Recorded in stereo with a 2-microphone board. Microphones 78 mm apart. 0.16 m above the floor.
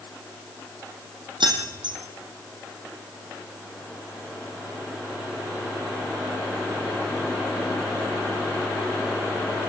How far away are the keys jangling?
About 4 m.